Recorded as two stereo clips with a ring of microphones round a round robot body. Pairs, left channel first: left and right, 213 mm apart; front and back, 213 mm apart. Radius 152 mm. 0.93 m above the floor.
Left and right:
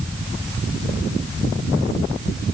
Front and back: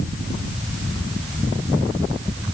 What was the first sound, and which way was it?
Only background noise.